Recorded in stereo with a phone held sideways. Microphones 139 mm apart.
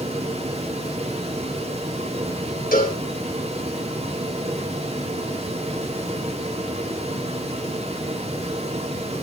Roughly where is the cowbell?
Left.